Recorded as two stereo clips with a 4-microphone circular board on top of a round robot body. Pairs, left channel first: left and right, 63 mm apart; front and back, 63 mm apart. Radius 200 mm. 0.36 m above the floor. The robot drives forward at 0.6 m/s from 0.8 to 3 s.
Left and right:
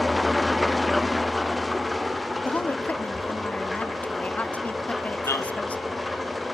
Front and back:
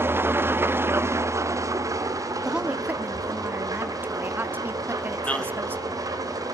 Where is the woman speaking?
105° left, 0.8 m; by 6.0 s 145° left, 0.9 m.